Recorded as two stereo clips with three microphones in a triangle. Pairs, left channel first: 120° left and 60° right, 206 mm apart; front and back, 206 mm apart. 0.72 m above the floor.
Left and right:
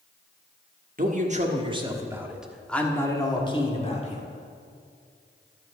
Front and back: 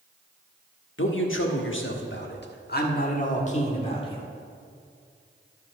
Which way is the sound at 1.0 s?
15° right.